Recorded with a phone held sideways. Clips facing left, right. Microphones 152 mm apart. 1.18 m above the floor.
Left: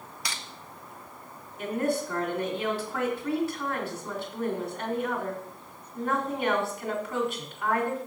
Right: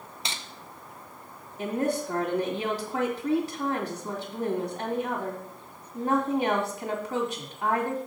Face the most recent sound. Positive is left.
turn(degrees=-40)  # may be behind; listen again after turning